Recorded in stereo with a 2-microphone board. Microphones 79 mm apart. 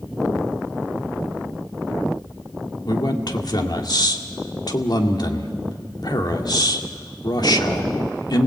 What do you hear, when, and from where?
2.9 s a man speaking: 65° left (ahead or behind), 1.9 m